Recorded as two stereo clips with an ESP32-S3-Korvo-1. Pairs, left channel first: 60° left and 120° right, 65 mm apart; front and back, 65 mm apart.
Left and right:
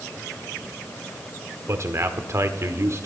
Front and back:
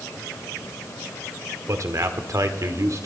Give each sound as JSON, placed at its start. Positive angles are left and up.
{"t": 1.7, "sound": "a man speaking", "azimuth_deg": -155, "distance_m": 1.5}